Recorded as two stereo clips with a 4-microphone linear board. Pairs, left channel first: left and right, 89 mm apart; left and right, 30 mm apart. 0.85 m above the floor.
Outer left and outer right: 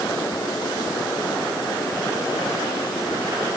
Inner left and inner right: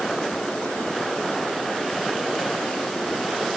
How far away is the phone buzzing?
No phone buzzing in this recording.